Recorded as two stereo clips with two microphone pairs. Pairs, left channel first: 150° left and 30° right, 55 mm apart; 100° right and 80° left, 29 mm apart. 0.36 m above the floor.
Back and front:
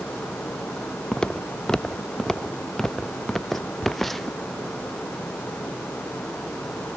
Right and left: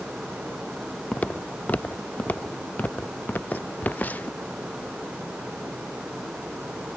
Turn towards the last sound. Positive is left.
turn(degrees=-120)